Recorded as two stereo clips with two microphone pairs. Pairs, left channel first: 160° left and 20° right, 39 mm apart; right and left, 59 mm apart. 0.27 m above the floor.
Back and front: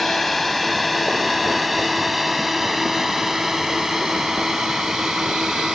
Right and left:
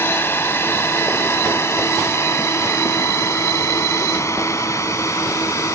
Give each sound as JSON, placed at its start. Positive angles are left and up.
{"t": 0.0, "sound": "a drone", "azimuth_deg": -115}